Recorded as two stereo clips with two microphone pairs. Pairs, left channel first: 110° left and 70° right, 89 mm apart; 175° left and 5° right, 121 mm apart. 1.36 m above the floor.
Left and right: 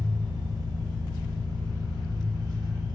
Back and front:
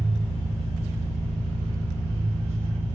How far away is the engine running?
About 0.9 m.